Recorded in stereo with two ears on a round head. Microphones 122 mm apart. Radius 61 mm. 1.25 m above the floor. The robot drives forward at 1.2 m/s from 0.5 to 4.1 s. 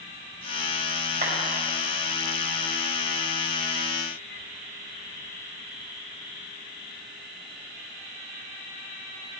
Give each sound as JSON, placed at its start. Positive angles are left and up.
{"t": 1.2, "sound": "a clap", "side_deg": -65, "distance_m": 6.5}